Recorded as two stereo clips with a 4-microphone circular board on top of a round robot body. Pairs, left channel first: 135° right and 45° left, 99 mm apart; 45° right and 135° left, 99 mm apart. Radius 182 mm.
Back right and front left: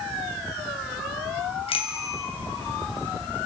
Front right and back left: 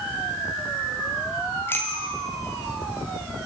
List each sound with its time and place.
1.7 s a bicycle bell: 115° right, 3 m